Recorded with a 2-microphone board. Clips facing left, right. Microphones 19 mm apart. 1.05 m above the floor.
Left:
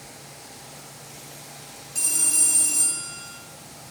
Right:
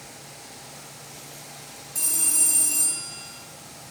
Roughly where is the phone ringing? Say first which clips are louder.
Left 1 dB; left.